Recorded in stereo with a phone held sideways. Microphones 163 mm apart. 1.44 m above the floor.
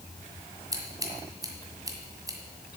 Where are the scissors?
20° right (ahead or behind), 1.5 m.